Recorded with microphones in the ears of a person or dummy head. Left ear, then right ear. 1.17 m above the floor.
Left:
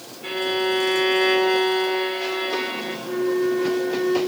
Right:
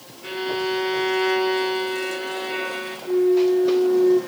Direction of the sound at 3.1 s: 55° left (ahead or behind).